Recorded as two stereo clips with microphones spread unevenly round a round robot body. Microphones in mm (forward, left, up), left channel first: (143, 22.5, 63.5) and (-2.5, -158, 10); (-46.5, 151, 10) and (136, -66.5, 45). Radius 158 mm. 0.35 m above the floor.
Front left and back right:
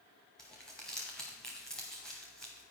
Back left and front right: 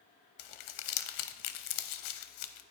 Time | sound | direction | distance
0.4 | crumpling | 140° left | 0.6 m